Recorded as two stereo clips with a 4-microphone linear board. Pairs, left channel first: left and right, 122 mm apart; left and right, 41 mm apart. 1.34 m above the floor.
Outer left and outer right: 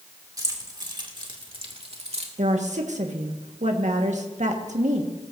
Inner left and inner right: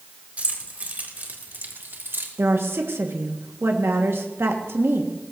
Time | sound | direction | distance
0.4 | keys jangling | 30° right (ahead or behind) | 3 m
2.4 | a woman speaking | 75° right (ahead or behind) | 1.7 m